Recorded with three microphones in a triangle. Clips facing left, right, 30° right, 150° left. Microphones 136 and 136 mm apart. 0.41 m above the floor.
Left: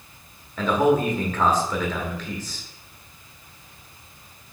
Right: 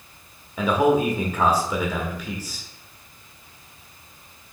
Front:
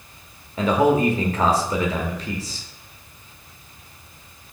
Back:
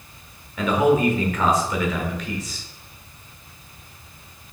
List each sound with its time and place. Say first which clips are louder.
0.6 s a man speaking: right 1 dB, front 1 dB; 20° right, 0.9 m